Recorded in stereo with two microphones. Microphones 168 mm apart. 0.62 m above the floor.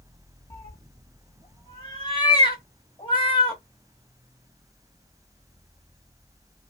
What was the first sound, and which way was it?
A cat meowing, 30° left (ahead or behind).